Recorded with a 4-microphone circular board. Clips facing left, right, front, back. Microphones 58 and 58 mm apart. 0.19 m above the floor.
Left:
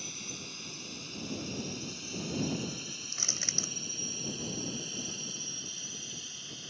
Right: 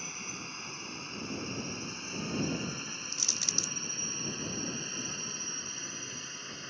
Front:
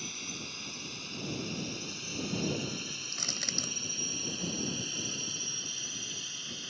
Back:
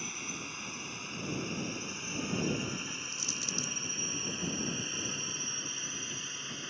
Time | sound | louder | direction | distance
0.0 | a drone | right 3 dB, back 2 dB | 120° right | ?
3.1 | crushing | right 1 dB, even | 35° left | ?